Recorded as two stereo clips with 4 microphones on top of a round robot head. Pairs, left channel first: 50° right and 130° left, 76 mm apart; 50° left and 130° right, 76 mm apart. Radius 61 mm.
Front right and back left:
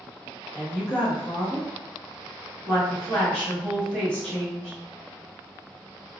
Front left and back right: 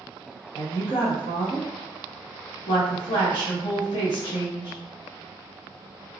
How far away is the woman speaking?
About 1.4 m.